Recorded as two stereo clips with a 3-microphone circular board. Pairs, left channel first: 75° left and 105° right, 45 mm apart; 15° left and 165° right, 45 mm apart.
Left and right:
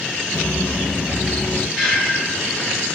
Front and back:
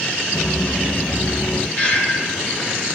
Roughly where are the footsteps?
Ahead right.